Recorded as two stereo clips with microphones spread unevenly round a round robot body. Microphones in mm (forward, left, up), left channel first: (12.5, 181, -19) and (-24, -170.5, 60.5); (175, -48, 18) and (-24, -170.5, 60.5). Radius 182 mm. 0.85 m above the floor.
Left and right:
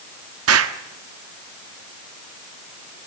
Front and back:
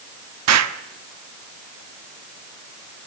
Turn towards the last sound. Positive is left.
turn(degrees=-150)